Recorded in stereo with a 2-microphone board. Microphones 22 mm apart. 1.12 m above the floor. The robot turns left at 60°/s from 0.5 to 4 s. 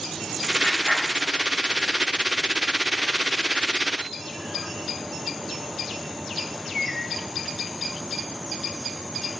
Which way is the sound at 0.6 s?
30° left (ahead or behind).